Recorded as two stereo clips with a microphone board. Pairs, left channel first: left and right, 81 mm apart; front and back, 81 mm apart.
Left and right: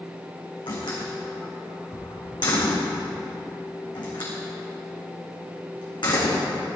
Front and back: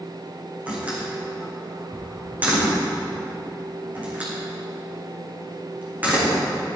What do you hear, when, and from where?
0.7 s a door slam: 110° left, 5.5 m